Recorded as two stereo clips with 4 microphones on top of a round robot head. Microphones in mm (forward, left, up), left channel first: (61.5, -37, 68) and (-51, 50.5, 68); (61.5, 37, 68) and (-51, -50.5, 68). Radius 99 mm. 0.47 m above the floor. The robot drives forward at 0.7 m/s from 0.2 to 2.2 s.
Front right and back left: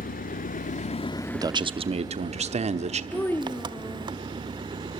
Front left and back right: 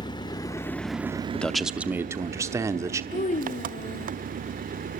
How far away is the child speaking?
About 0.6 m.